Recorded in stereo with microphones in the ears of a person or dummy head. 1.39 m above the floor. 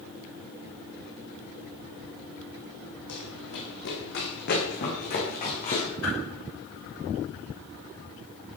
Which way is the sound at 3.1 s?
70° left (ahead or behind).